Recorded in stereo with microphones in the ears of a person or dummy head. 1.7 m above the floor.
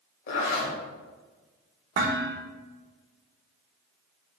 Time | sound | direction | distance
0.3 | a zipper | 60° left (ahead or behind) | 2.5 m
1.9 | dishes clattering | 45° right (ahead or behind) | 1.2 m